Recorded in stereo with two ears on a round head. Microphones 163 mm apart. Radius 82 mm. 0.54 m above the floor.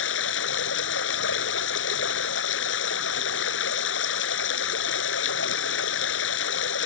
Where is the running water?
75° left (ahead or behind).